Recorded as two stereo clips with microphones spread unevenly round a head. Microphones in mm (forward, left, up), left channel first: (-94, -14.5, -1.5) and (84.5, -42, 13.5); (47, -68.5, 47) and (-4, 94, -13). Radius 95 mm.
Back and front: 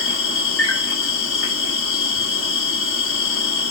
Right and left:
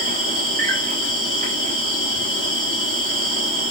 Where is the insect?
150° left, 1.6 m.